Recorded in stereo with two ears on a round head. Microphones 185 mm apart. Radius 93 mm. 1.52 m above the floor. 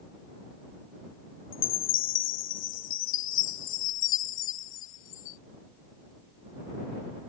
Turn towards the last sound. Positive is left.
turn(degrees=65)  # may be behind; listen again after turning